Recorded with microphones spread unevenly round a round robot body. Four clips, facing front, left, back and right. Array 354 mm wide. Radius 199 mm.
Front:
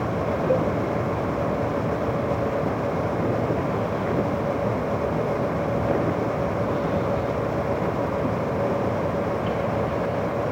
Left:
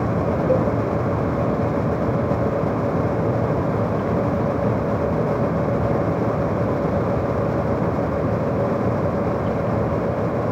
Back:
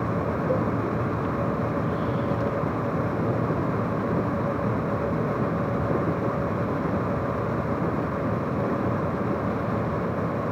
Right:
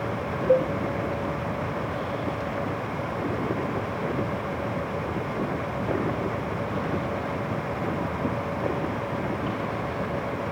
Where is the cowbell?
120° left.